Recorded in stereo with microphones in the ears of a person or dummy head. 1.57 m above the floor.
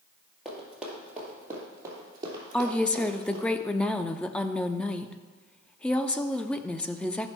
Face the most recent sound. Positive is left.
turn(degrees=5)  # may be behind; listen again after turning